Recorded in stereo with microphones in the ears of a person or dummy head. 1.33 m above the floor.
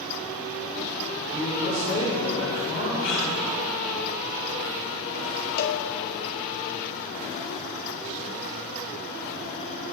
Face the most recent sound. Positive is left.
turn(degrees=40)  # may be behind; listen again after turning